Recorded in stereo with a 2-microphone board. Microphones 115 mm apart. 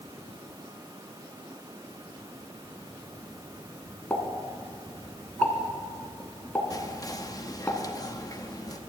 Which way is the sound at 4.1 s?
10° left (ahead or behind).